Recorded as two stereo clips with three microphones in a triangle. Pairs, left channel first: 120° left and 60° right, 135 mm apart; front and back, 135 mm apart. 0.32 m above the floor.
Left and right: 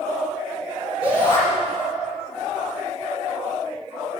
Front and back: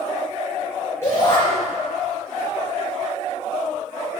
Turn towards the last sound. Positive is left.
turn(degrees=70)